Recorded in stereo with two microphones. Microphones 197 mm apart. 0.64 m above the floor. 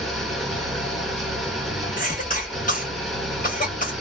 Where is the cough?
40° left (ahead or behind), 1.4 m.